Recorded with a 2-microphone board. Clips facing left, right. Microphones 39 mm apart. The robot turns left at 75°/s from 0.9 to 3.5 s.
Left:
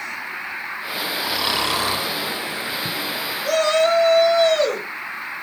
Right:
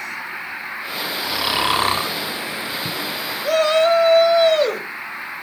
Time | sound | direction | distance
1.2 | snoring | 10° left | 0.6 m
3.4 | a shout | 15° right (ahead or behind) | 0.9 m